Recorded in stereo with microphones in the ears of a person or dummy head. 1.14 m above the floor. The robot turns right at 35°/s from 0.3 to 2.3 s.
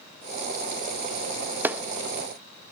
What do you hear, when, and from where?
1.6 s a clap: 10° right (ahead or behind), 0.7 m; by 1.8 s 5° right (ahead or behind), 0.7 m